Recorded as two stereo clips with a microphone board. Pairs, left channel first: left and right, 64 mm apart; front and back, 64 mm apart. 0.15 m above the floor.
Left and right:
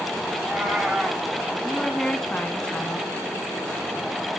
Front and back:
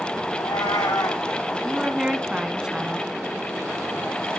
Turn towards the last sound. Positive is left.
turn(degrees=125)